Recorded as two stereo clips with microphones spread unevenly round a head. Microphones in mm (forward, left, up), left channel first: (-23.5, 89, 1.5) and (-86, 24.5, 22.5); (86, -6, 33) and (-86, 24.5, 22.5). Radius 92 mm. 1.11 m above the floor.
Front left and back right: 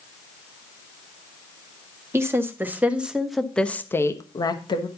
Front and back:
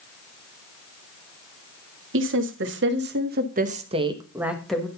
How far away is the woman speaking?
About 1.9 m.